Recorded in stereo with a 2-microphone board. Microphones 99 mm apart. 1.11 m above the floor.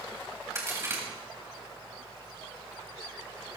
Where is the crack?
30° right (ahead or behind), 3.5 m.